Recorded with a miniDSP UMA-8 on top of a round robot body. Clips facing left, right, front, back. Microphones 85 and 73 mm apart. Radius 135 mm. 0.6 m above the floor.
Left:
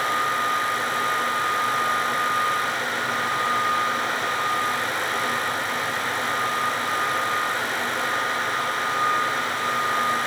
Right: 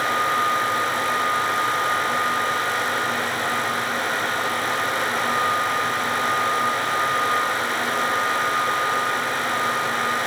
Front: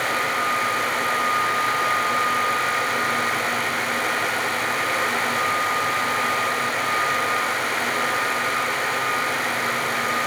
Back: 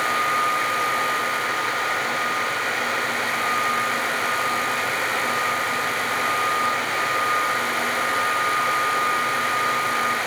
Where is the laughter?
I don't hear laughter.